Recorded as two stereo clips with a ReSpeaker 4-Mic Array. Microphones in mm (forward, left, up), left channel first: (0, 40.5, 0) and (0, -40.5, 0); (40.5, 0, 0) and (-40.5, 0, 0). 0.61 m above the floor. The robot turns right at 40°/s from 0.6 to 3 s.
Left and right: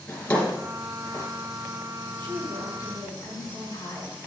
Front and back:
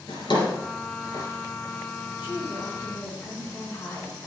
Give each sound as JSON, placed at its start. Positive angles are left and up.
{"t": 0.1, "sound": "a drawer", "azimuth_deg": 15, "distance_m": 3.5}
{"t": 2.2, "sound": "a woman speaking", "azimuth_deg": 20, "distance_m": 6.0}